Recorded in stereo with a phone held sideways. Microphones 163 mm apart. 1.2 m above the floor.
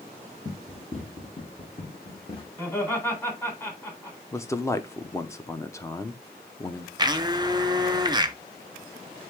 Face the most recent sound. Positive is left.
turn(degrees=-25)  # may be behind; listen again after turning